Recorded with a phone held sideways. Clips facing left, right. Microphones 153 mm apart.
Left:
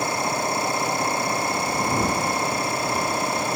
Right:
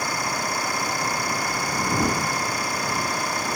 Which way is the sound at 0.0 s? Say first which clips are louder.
Left 3 dB; 25° left (ahead or behind).